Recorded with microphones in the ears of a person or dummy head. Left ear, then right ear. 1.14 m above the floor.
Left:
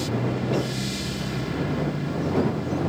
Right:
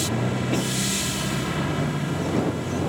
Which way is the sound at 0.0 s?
45° right (ahead or behind).